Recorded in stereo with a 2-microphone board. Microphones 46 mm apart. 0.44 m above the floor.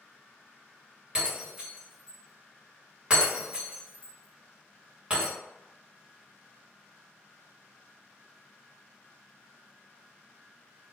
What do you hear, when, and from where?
1.1 s breaking glass: 20° right (ahead or behind), 1.3 m